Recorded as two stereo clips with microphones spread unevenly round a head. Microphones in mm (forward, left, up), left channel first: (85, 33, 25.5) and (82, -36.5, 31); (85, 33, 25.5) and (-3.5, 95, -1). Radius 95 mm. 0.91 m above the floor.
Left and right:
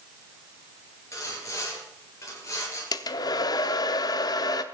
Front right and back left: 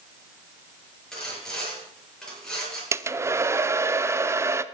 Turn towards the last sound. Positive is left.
turn(degrees=75)